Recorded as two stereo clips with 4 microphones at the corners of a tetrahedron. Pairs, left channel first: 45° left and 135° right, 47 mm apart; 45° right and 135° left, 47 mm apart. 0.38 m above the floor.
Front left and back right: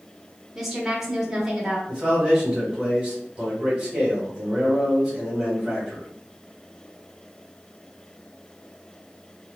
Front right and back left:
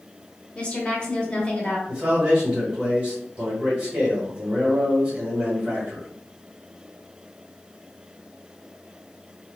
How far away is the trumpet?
I don't hear a trumpet.